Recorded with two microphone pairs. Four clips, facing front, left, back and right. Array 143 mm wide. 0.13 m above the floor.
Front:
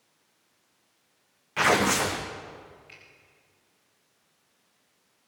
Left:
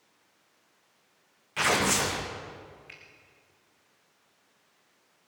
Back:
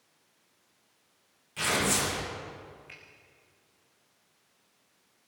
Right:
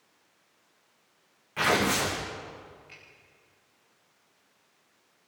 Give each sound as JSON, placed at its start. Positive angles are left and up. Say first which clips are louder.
{"t": 1.6, "sound": "tearing paper", "louder": "right 1 dB, front 7 dB", "azimuth_deg": 10, "distance_m": 4.0}
{"t": 2.9, "sound": "a finger snap", "louder": "left 1 dB, back 1 dB", "azimuth_deg": 125, "distance_m": 6.5}